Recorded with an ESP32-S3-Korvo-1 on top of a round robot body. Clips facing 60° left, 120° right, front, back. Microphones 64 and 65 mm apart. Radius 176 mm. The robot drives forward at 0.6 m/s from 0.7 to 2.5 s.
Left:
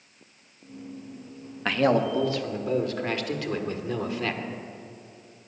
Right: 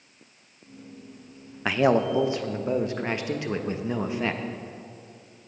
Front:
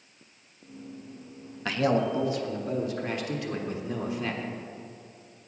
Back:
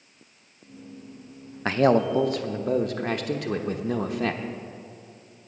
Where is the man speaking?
165° left, 0.7 m; by 4.4 s 175° left, 1.1 m.